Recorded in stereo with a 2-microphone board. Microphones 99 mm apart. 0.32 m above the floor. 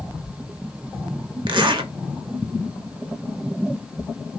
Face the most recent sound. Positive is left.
turn(degrees=-55)  # may be behind; listen again after turning